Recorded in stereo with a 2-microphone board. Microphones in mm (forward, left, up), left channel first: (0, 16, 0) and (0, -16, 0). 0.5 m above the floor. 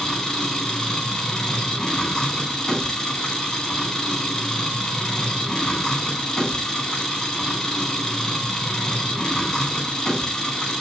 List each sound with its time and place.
0.0 s an engine running: 20° left (ahead or behind), 3.5 m